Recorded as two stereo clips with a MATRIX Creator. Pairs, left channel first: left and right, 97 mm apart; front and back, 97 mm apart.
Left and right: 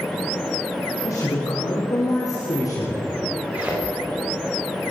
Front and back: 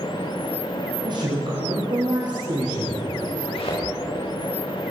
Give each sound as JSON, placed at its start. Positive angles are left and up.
{"t": 1.0, "sound": "a man speaking", "azimuth_deg": 140, "distance_m": 4.5}
{"t": 3.5, "sound": "a thud", "azimuth_deg": -15, "distance_m": 7.5}